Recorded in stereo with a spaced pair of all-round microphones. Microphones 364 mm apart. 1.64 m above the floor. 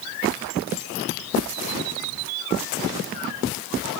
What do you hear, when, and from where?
Only background noise.